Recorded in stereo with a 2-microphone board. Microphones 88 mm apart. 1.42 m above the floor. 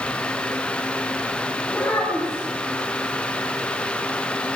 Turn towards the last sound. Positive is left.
turn(degrees=25)  # may be behind; listen again after turning